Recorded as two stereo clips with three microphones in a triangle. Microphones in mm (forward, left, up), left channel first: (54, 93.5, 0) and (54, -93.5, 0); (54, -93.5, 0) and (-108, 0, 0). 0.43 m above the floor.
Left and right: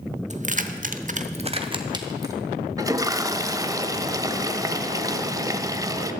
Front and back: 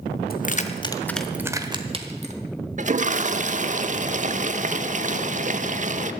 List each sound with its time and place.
0.3 s keys jangling: 50° right, 1.1 m; by 2.4 s 160° right, 1.6 m
2.8 s a toilet flushing: 160° right, 0.6 m